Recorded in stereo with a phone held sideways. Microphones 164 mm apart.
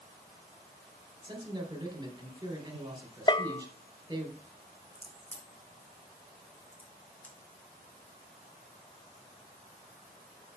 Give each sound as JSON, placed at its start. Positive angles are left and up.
{"t": 1.2, "sound": "a man speaking", "side_deg": -25, "distance_m": 3.0}
{"t": 3.3, "sound": "a bell", "side_deg": 30, "distance_m": 0.5}
{"t": 5.0, "sound": "a crack", "side_deg": 10, "distance_m": 3.0}